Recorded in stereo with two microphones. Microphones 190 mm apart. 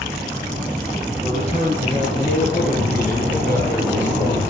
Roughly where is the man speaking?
Left.